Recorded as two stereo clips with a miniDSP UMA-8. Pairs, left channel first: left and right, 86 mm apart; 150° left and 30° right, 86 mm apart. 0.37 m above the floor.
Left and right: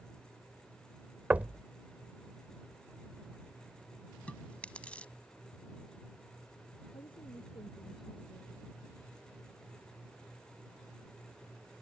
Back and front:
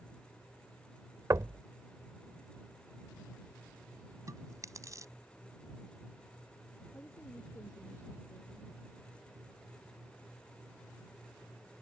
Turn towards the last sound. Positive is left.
turn(degrees=90)